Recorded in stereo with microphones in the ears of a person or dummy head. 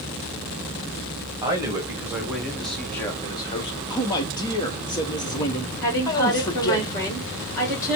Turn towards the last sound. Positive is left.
turn(degrees=15)  # may be behind; listen again after turning